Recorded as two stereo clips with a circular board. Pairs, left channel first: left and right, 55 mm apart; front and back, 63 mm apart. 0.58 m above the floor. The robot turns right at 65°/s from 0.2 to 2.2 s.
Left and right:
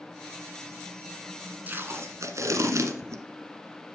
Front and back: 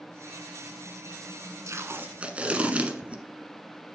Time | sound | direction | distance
1.7 | tape being pulled | 145° right | 1.1 m